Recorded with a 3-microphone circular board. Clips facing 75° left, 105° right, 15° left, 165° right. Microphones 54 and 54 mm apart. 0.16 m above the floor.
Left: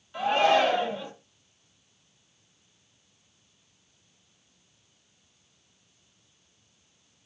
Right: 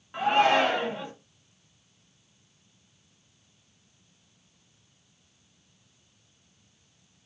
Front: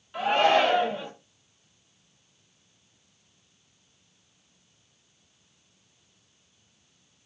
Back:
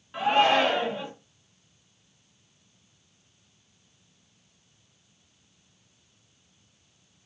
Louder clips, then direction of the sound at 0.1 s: Even, even; 100° right.